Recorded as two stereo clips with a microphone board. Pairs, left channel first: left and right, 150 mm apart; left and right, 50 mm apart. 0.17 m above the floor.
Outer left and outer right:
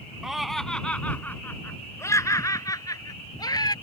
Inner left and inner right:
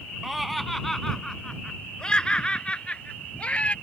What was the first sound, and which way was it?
Laughter, 5° right (ahead or behind).